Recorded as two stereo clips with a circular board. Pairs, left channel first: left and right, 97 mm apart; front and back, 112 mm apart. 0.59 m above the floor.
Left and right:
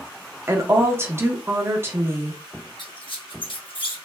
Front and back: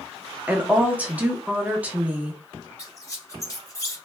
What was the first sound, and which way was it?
A woman speaking, 120° right.